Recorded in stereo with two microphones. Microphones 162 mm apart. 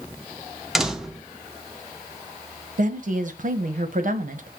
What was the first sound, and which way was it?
A door slam, centre (ahead or behind).